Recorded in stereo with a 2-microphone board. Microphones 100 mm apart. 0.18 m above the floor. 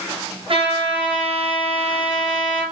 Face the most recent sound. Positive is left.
turn(degrees=-55)  # may be behind; listen again after turning